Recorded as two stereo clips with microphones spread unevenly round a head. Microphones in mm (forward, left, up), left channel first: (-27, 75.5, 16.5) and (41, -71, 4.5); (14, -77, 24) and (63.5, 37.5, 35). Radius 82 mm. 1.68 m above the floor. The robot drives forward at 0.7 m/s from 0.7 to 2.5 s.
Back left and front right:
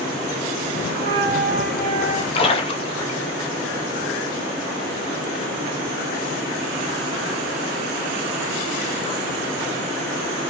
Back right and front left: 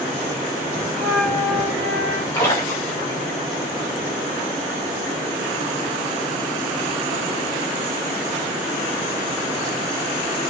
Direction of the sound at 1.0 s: 30° right.